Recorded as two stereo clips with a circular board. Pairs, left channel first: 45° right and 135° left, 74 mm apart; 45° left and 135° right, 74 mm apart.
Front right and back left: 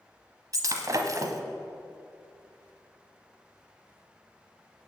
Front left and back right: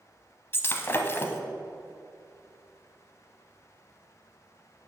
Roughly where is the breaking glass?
Left.